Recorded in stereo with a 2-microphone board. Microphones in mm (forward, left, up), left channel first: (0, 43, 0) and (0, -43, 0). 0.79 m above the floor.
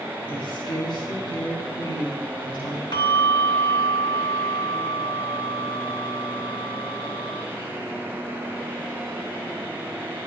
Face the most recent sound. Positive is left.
turn(degrees=65)  # may be behind; listen again after turning